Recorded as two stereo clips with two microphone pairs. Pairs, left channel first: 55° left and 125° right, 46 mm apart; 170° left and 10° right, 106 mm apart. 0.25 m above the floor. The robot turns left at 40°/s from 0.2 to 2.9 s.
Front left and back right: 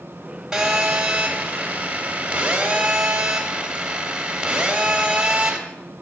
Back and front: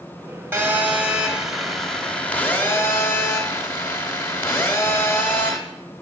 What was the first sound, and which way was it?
A phone buzzing, 60° right.